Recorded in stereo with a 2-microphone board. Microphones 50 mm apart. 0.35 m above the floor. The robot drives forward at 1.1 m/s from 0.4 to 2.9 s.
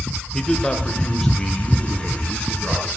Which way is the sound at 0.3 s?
10° left (ahead or behind).